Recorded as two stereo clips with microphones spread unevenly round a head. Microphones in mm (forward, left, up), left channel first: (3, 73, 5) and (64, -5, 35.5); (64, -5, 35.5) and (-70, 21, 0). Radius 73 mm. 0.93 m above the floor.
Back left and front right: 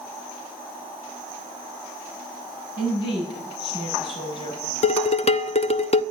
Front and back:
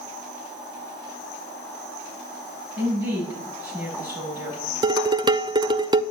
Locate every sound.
2.8 s a woman speaking: 90° left, 8 m
4.8 s dishes clattering: 105° left, 0.7 m